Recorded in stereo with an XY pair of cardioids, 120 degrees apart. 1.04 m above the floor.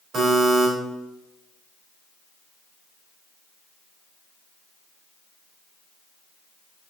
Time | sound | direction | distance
0.1 | a buzzer | 45° right | 4 m